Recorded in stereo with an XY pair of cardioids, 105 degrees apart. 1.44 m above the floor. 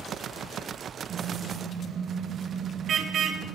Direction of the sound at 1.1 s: 60° right.